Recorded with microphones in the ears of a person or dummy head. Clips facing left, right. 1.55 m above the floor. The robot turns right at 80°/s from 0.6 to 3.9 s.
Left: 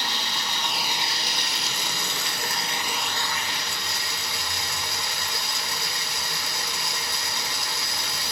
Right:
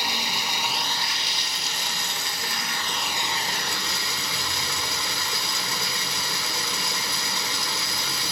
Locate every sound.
0.0 s running water: 15° right, 0.9 m; by 8.3 s 110° right, 0.9 m